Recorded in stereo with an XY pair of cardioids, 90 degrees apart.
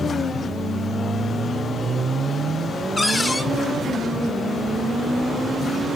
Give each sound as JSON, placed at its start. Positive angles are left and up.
{"t": 3.0, "sound": "a cupboard door", "azimuth_deg": 25, "distance_m": 0.8}